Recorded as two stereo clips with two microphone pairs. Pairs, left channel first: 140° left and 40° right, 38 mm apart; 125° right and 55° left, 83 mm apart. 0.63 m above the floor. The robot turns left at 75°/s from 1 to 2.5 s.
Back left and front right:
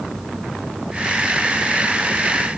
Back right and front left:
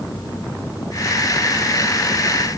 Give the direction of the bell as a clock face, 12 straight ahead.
I don't hear a bell.